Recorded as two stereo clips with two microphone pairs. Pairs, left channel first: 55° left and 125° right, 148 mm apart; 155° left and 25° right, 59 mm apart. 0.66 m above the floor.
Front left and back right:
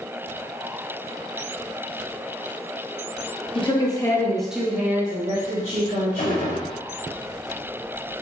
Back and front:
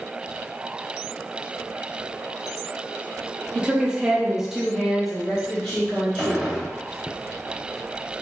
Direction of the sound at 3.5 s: 40° left.